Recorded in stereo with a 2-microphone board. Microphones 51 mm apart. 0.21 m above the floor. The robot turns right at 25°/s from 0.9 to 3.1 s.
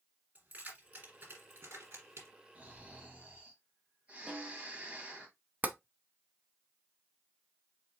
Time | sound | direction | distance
0.3 | keys jangling | 35° right (ahead or behind) | 3 m
2.5 | snoring | 30° right (ahead or behind) | 1.8 m
4.3 | a snare drum | 10° right (ahead or behind) | 1.2 m
5.6 | tapping | 35° right (ahead or behind) | 0.6 m